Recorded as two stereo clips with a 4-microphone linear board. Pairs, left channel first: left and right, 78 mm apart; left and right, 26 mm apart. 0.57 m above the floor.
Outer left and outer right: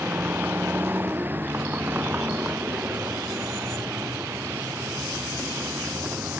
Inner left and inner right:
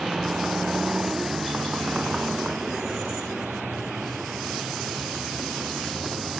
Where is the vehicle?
25° right (ahead or behind).